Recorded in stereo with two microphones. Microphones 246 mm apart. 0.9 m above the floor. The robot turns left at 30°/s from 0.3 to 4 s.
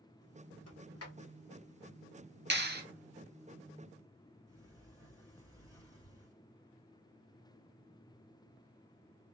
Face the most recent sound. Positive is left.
turn(degrees=-15)  # may be behind; listen again after turning